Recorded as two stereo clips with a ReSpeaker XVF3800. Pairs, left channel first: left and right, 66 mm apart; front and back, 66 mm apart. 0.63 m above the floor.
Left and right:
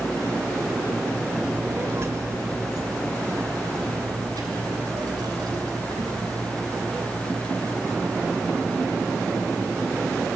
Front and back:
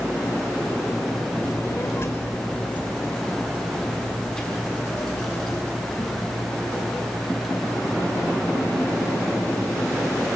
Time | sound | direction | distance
1.4 | a child speaking | 20° right | 1.6 m